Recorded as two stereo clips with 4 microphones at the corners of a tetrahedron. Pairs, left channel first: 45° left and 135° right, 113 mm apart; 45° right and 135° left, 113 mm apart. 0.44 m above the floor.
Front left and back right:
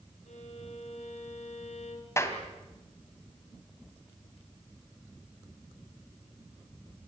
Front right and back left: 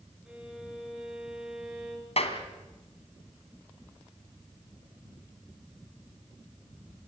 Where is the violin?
50° left, 3.5 m.